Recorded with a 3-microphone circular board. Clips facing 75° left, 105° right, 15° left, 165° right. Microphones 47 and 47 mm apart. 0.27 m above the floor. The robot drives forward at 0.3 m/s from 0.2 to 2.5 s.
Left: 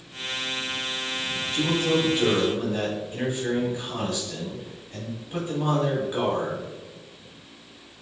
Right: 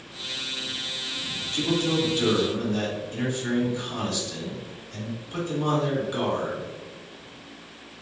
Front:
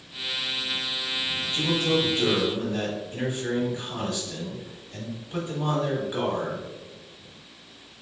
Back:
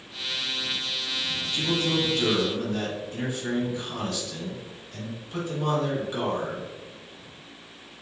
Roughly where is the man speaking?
Ahead left.